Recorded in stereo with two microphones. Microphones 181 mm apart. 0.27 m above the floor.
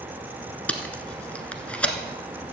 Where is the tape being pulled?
5° left (ahead or behind), 1.0 m.